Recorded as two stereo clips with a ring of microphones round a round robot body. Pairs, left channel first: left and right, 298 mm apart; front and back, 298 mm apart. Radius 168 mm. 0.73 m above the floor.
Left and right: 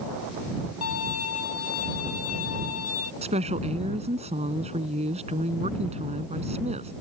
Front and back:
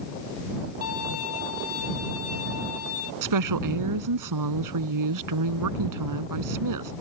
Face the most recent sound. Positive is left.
turn(degrees=-160)